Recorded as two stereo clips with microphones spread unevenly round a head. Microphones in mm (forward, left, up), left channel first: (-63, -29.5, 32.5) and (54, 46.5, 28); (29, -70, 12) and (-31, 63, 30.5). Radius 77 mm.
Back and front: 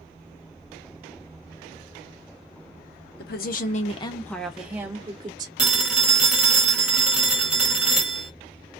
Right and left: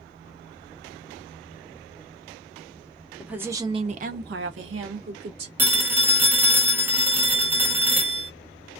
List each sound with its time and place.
3.2 s a woman speaking: 160° right, 0.9 m; by 5.5 s 95° left, 1.4 m
5.6 s a phone ringing: 110° left, 0.8 m